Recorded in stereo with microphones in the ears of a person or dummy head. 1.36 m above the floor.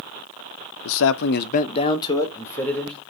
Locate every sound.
0.8 s a man speaking: 75° left (ahead or behind), 0.8 m; by 3.0 s centre (ahead or behind), 2 m